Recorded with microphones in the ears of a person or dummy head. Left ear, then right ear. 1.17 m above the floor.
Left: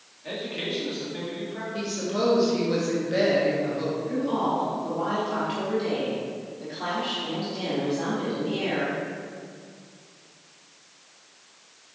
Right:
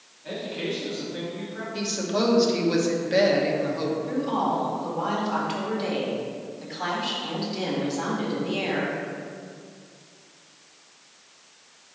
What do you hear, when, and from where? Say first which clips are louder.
0.2 s a man speaking: even; 35° left (ahead or behind), 1.9 m
1.7 s a woman speaking: right 3 dB; 25° right (ahead or behind), 1.2 m
4.1 s a woman speaking: even; 20° right (ahead or behind), 2.0 m